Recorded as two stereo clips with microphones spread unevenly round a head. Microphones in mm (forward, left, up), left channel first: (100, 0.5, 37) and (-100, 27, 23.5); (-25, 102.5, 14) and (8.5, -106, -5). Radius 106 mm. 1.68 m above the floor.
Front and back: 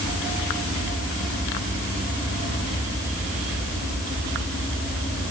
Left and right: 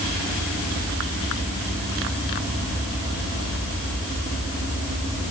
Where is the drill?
No drill in this recording.